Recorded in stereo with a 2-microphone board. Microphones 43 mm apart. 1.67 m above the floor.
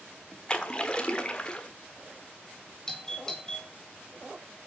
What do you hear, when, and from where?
0.5 s a splash: 20° left (ahead or behind), 1.3 m
2.9 s a doorbell: 15° left (ahead or behind), 2.5 m